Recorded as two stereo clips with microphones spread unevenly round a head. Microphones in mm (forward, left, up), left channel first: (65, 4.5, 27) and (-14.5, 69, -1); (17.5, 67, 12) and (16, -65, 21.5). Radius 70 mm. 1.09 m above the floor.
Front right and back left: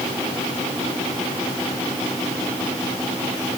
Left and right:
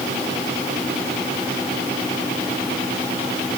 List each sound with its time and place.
Only background noise.